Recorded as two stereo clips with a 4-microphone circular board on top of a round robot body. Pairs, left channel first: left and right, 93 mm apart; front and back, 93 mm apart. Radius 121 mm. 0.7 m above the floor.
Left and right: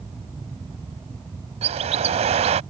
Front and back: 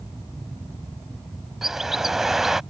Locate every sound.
1.6 s a bird: 95° right